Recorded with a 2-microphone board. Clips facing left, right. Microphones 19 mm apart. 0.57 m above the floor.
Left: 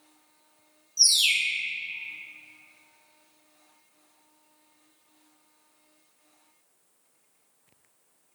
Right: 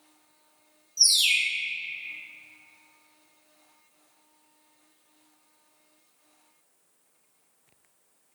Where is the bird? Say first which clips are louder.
Even; 5° left (ahead or behind), 0.8 m.